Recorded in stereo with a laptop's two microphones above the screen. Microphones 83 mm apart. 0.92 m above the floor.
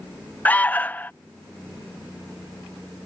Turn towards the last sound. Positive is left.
turn(degrees=20)  # may be behind; listen again after turning